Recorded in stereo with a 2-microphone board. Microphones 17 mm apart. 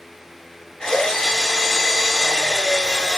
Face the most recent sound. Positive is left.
turn(degrees=60)  # may be behind; listen again after turning